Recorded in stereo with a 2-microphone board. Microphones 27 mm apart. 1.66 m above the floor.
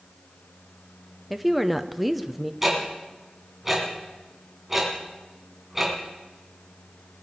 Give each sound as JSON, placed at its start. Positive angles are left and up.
{"t": 1.3, "sound": "a woman speaking", "side_deg": -5, "distance_m": 0.7}
{"t": 2.6, "sound": "ticking", "side_deg": -10, "distance_m": 3.5}